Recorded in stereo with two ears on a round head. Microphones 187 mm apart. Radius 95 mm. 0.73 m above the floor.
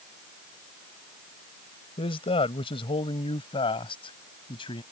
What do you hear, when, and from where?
2.0 s a man speaking: 30° left (ahead or behind); by 4.8 s 25° left (ahead or behind)